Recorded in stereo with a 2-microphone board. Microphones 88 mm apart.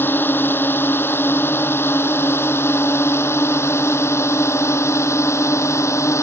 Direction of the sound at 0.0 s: 25° left (ahead or behind).